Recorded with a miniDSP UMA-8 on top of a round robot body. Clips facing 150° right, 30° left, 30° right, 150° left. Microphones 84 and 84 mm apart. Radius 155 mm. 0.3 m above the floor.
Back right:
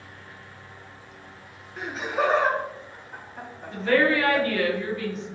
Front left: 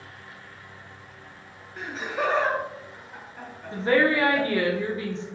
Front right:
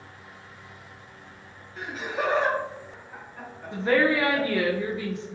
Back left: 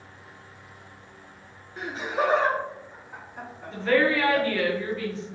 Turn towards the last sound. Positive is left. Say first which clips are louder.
# even, even
turn(degrees=15)